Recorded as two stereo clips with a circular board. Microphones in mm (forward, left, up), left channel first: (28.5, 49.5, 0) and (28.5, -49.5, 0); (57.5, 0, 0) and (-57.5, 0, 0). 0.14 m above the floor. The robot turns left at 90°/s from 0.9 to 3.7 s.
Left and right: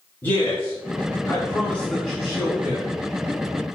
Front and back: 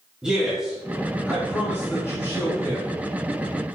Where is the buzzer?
No buzzer in this recording.